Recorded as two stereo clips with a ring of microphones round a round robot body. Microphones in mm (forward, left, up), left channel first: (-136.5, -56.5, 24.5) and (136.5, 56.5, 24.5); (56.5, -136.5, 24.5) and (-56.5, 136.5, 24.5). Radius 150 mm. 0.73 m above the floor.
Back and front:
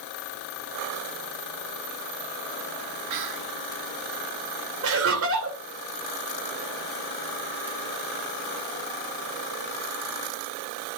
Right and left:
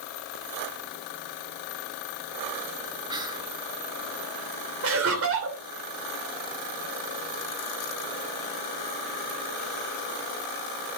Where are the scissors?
I don't hear scissors.